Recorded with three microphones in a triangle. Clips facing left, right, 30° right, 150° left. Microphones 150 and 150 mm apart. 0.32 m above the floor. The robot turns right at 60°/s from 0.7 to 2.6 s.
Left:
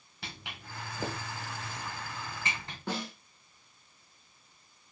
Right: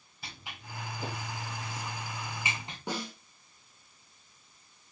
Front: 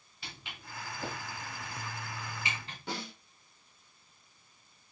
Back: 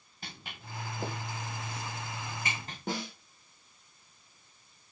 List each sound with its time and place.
0.2 s footsteps: 105° left, 3 m; by 2.8 s 165° right, 2.0 m
2.9 s a snare drum: 165° right, 3 m